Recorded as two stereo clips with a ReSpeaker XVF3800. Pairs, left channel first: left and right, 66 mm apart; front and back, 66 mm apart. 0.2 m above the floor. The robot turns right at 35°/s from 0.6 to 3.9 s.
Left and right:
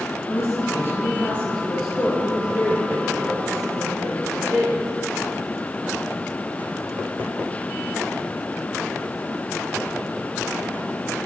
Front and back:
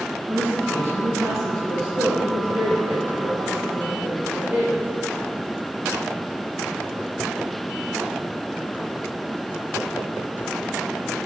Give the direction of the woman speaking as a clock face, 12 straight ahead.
8 o'clock.